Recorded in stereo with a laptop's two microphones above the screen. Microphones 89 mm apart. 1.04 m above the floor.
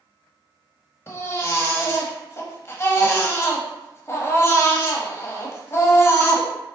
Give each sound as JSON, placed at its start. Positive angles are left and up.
{"t": 1.1, "sound": "a baby crying", "side_deg": 25, "distance_m": 0.7}